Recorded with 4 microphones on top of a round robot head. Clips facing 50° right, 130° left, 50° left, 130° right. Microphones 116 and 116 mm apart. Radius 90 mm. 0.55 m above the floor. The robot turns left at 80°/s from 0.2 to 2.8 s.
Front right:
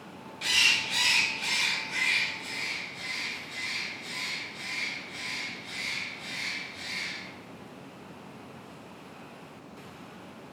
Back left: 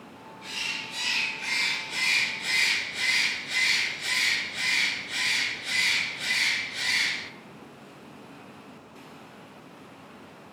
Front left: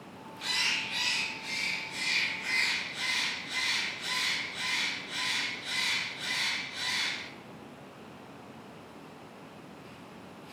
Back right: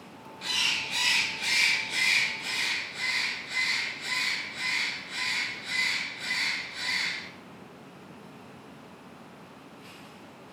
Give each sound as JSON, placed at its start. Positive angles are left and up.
{"t": 0.4, "sound": "a bird", "azimuth_deg": -35, "distance_m": 0.5}